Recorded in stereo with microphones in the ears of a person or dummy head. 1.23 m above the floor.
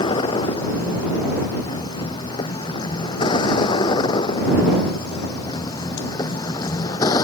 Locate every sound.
0.0 s a vehicle: 25° left (ahead or behind); by 7.2 s 20° left (ahead or behind)